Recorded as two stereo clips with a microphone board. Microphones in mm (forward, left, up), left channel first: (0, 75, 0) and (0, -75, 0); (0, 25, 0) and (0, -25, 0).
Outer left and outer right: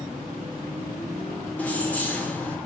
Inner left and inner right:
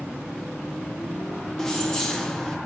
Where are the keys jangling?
10° left (ahead or behind), 0.7 m.